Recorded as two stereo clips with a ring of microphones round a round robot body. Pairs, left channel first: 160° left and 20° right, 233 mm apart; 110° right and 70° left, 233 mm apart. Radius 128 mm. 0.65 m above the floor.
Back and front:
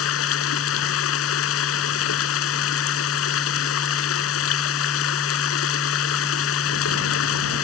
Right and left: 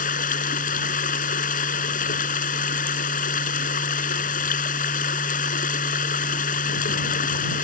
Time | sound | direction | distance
0.0 | running water | 170° right | ?